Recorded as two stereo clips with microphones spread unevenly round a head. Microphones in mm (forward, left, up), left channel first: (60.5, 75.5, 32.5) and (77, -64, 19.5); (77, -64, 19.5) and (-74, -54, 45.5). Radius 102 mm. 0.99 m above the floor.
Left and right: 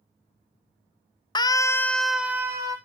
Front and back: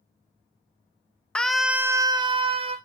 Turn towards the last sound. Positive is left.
turn(degrees=-135)